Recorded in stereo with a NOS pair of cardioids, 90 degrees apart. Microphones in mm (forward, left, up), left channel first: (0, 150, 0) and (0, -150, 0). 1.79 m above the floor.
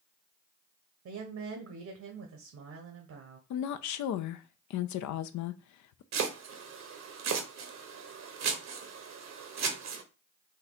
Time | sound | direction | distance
1.1 | a woman speaking | 70° right | 1.3 m
3.5 | a woman speaking | 70° left | 0.6 m
6.1 | chopping | 65° right | 1.2 m